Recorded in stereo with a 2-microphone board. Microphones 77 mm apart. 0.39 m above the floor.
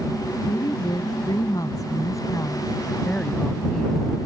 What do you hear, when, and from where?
0.5 s a woman speaking: 70° left (ahead or behind); by 4.1 s 5° left (ahead or behind)